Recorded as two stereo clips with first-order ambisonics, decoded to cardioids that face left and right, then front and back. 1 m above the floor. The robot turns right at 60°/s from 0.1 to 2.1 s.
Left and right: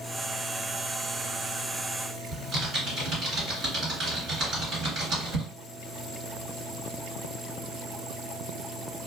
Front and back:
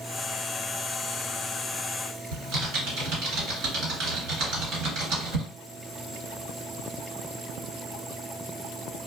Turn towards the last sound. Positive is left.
turn(degrees=-150)